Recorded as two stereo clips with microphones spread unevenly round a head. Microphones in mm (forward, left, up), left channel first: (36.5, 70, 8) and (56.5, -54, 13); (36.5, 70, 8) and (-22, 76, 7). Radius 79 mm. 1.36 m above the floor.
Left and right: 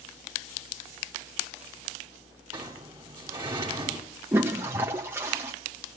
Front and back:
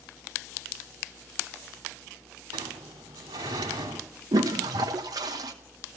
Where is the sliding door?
155° right, 2.5 m.